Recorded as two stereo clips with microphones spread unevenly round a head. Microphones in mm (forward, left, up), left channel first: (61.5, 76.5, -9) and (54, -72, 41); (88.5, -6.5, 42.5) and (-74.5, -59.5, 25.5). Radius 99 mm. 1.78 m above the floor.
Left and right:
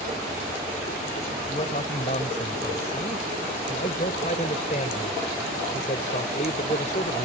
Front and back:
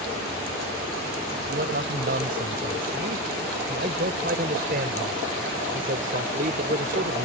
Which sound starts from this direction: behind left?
A man speaking, at 1.5 s.